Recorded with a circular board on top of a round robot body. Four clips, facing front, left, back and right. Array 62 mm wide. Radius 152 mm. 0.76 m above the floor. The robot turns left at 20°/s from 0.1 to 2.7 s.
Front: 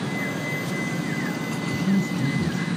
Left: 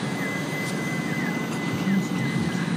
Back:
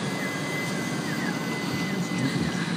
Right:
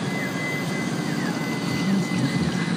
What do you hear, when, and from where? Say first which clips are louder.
1.7 s a man speaking: right 1 dB, front 5 dB; 80° right, 5.5 m; by 2.7 s 100° right, 5.5 m